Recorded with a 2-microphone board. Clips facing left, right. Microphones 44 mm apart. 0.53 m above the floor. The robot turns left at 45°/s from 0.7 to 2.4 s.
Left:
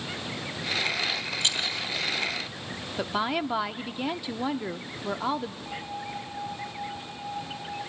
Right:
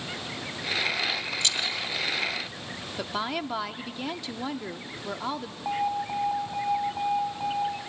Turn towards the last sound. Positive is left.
turn(degrees=-40)  # may be behind; listen again after turning